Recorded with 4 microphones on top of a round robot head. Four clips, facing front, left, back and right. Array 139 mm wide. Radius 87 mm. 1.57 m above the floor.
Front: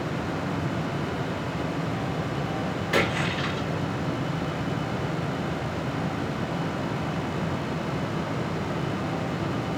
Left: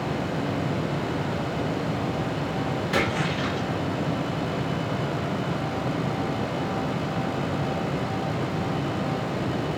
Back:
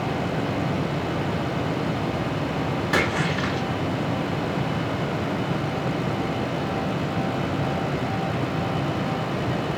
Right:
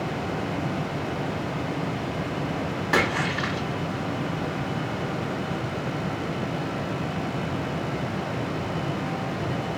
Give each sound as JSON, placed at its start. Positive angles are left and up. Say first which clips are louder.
{"t": 2.9, "sound": "a splash", "louder": "right 3 dB, back 1 dB", "azimuth_deg": -125, "distance_m": 1.0}